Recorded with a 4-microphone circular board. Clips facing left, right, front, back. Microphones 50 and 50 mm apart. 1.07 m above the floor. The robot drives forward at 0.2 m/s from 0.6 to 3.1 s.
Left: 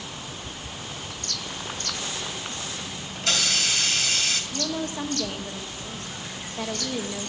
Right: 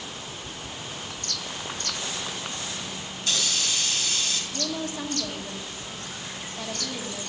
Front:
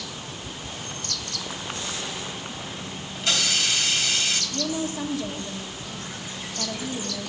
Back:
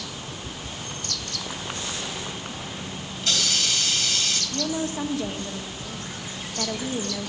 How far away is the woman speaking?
About 1.5 m.